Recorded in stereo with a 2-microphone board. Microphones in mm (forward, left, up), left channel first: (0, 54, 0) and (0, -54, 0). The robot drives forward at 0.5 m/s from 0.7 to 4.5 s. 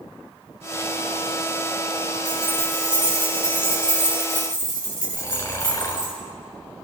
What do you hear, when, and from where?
2.2 s keys jangling: 50° right (ahead or behind), 4 m; by 6.1 s 40° right (ahead or behind), 5 m
5.1 s snoring: 30° left (ahead or behind), 1.8 m